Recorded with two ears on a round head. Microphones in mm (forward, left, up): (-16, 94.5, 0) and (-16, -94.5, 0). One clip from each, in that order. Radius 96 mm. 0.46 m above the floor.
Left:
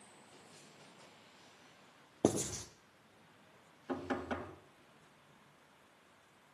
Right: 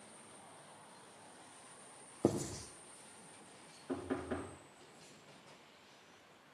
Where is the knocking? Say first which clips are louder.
Left 2 dB; 85° left, 4 m.